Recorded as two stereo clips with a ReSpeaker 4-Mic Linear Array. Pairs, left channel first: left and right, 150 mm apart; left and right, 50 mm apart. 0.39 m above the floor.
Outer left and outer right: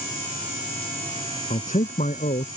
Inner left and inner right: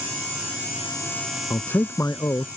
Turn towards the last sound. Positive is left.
turn(degrees=55)  # may be behind; listen again after turning